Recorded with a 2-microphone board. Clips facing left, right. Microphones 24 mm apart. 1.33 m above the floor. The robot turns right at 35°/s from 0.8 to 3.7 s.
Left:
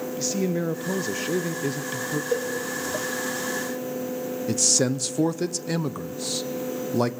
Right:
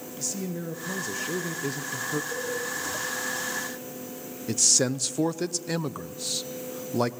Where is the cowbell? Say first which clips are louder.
Left 7 dB; 55° left (ahead or behind), 5 m; by 2.5 s 50° left (ahead or behind), 5 m.